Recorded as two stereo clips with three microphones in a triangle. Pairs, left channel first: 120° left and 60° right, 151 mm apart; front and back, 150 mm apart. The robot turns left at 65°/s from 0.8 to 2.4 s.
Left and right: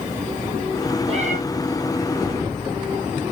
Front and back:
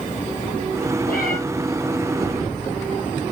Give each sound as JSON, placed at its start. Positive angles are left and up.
{"t": 1.1, "sound": "a cat meowing", "azimuth_deg": -10, "distance_m": 2.0}